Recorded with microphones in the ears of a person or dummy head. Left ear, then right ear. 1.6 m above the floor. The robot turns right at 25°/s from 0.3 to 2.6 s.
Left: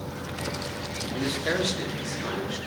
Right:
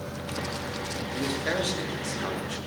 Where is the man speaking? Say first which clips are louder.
Left 1 dB; straight behind, 2.5 m; by 2.6 s 145° right, 2.5 m.